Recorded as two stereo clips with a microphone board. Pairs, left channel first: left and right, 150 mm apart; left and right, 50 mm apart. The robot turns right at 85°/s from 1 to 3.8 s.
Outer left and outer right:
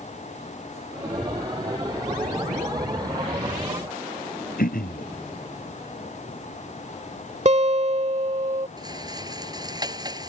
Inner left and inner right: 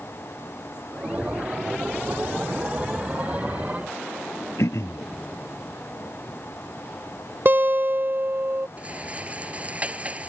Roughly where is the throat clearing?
Left.